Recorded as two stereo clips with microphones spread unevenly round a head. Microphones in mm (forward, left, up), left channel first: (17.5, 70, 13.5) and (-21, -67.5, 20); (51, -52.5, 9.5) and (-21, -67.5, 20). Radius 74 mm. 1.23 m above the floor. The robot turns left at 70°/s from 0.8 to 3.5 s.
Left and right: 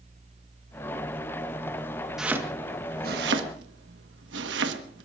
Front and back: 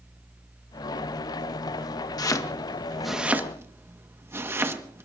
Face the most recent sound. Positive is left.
turn(degrees=-110)